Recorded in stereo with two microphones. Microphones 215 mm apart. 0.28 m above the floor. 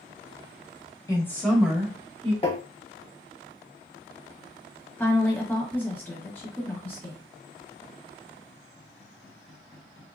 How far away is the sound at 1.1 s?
About 0.9 m.